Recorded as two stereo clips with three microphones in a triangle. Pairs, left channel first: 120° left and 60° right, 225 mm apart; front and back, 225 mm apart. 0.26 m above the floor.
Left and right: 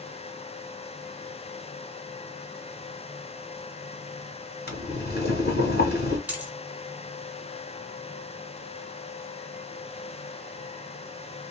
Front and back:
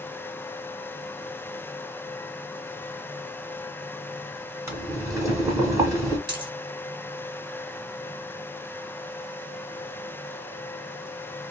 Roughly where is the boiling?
Left.